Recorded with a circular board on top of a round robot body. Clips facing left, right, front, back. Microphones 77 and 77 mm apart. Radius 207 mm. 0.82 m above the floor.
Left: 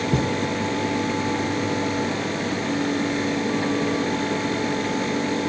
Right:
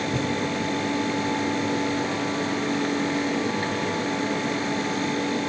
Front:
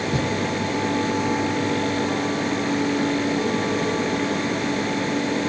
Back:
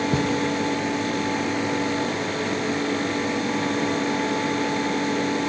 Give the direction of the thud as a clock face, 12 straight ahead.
8 o'clock.